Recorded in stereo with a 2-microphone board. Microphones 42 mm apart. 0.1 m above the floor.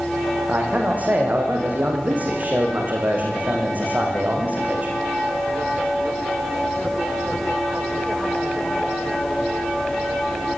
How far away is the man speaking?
About 9 m.